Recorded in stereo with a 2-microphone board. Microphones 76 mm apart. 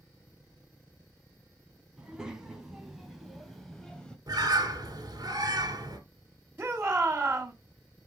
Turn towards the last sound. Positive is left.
turn(degrees=-25)  # may be behind; listen again after turning